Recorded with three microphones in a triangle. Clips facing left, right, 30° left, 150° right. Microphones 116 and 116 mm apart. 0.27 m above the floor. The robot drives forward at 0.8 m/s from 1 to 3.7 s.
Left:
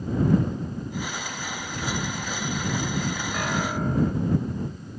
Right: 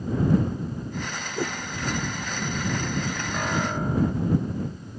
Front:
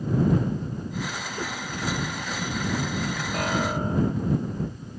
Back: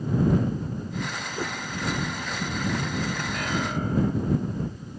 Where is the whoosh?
70° right.